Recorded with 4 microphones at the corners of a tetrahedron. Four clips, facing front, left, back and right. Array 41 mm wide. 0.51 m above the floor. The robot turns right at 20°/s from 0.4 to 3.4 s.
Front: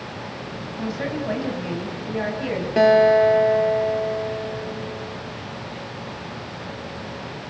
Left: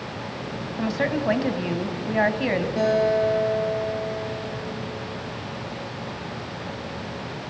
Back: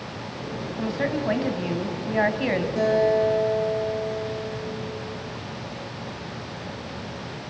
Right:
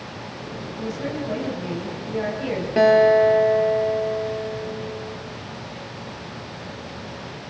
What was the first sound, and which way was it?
A woman speaking, 95° left.